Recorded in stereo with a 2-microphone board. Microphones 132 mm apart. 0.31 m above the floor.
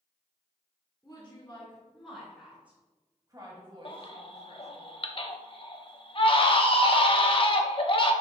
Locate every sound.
1.0 s a woman speaking: 20° left (ahead or behind), 2.5 m; by 4.8 s 60° right (ahead or behind), 2.5 m
3.9 s a baby crying: 45° left (ahead or behind), 0.7 m